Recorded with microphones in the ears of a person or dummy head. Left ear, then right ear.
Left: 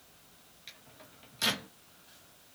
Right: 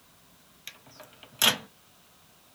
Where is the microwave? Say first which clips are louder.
Right 6 dB; 40° right (ahead or behind), 0.8 m.